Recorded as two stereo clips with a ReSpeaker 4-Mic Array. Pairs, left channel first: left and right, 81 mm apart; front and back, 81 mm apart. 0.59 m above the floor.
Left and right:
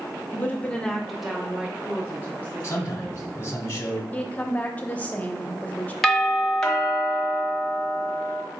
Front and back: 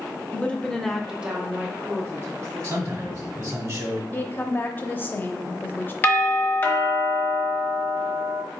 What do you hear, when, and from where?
0.3 s a woman speaking: 50° left, 0.8 m; by 3.6 s 145° right, 1.7 m
2.6 s a man speaking: 145° left, 1.4 m
4.1 s a woman speaking: 35° left, 0.7 m
6.0 s a doorbell: 15° left, 1.0 m